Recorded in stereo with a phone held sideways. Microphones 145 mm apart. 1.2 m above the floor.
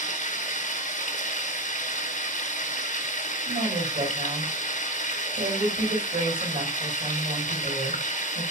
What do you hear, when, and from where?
0.0 s running water: 55° left (ahead or behind), 1.9 m
3.5 s a woman speaking: 85° right, 6 m